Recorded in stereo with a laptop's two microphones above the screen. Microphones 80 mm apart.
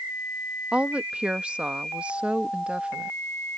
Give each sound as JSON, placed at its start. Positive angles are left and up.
{"t": 0.7, "sound": "a woman speaking", "side_deg": -15}